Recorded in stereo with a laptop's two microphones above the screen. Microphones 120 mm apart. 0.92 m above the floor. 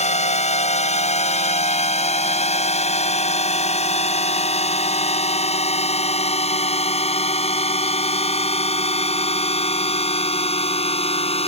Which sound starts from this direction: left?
A drone, at 0.0 s.